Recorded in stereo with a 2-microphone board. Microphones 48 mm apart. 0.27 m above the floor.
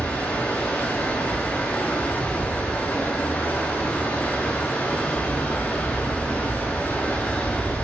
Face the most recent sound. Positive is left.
turn(degrees=30)  # may be behind; listen again after turning